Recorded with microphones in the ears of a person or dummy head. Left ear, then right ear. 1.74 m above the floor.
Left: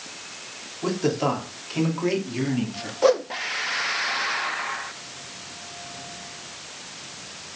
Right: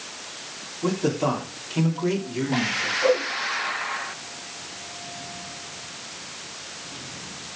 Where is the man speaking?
30° left (ahead or behind), 3.5 m; by 2.9 s 15° left (ahead or behind), 3 m.